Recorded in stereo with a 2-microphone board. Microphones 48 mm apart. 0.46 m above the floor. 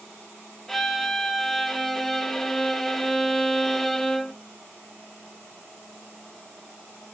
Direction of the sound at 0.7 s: 5° left (ahead or behind).